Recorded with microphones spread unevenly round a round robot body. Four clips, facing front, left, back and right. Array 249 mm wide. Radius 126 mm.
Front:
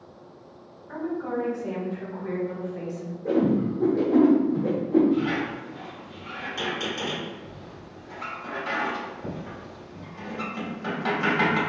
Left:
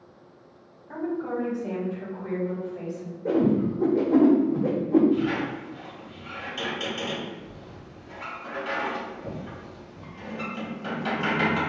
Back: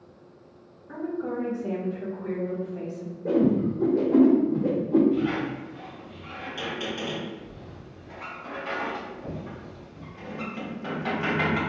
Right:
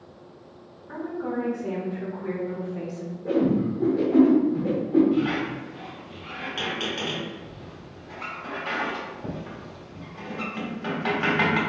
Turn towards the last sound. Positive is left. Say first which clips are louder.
# right 1 dB, front 1 dB
turn(degrees=-50)